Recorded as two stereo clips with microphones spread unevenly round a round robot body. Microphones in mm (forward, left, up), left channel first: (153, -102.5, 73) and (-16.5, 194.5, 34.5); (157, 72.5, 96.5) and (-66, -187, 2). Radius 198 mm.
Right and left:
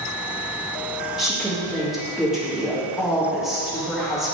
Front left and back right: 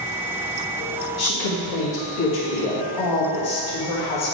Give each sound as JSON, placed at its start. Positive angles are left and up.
{"t": 1.2, "sound": "a woman speaking", "azimuth_deg": 35, "distance_m": 1.8}